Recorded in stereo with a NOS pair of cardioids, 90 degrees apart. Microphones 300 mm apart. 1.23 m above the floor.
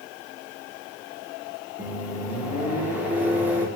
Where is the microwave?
5° right, 0.8 m.